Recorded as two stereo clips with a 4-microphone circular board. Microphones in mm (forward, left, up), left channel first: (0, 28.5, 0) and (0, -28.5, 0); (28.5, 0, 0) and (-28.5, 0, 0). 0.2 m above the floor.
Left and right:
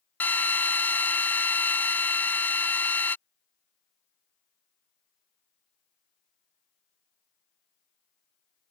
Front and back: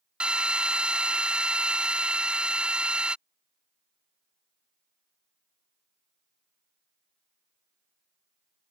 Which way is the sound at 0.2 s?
120° left.